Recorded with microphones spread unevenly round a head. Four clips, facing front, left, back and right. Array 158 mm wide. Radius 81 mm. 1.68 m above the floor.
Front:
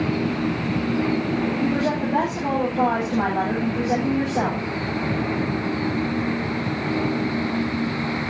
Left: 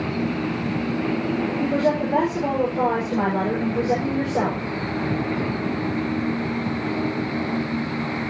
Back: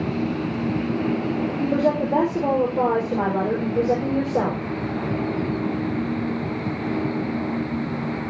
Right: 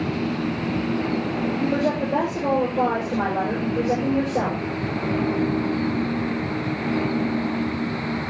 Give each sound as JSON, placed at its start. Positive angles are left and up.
{"t": 1.6, "sound": "a woman speaking", "azimuth_deg": 165, "distance_m": 6.0}